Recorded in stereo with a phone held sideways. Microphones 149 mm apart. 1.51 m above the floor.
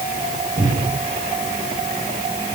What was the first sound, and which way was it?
A cupboard door, 70° right (ahead or behind).